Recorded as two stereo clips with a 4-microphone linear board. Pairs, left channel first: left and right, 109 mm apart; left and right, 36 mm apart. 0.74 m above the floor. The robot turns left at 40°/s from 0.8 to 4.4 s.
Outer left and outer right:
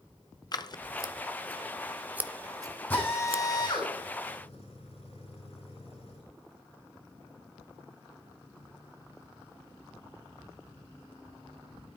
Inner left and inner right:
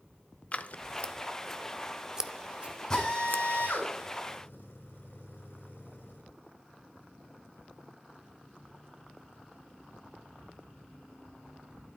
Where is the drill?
15° left (ahead or behind), 8 m; by 6.2 s 75° left (ahead or behind), 8 m.